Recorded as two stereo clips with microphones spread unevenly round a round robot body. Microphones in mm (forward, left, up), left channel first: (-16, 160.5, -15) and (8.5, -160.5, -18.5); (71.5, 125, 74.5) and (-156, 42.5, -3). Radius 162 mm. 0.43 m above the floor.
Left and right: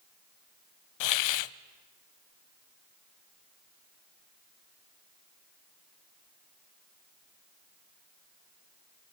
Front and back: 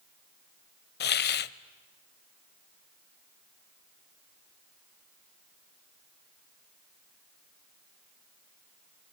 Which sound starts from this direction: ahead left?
A hiss, at 1.0 s.